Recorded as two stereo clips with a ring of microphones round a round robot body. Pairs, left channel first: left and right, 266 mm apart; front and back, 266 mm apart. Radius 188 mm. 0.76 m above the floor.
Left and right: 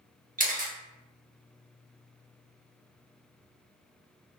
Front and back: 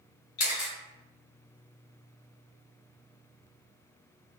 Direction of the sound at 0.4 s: 35° right.